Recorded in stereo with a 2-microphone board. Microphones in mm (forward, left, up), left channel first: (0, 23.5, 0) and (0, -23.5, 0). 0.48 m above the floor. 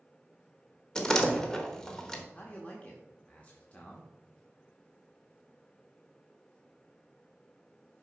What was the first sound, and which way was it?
A door slam, 10° left (ahead or behind).